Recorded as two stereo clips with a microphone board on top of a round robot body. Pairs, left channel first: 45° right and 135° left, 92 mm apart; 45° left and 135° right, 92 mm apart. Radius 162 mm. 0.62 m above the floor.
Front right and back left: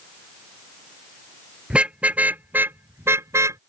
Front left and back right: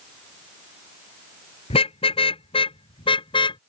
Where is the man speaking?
No man speaking in this recording.